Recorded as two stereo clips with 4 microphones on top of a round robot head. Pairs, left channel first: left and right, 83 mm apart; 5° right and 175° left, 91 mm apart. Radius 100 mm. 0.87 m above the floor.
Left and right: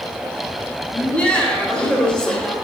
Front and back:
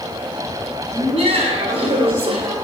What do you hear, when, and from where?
0.9 s laughter: 165° left, 4 m; by 2.5 s 175° left, 3 m